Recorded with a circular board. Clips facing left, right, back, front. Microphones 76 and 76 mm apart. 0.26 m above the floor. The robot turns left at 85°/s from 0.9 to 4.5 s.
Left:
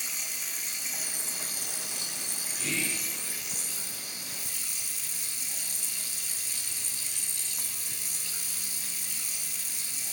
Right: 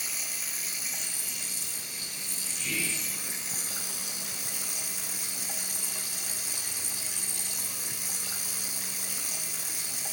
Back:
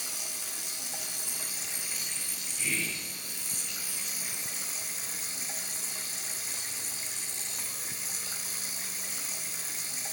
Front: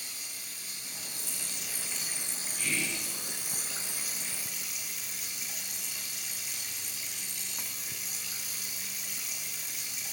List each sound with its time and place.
0.0 s running water: 175° right, 2.0 m; by 10.1 s 120° right, 2.0 m
2.6 s whispering: 105° left, 4 m; by 3.1 s 65° left, 4 m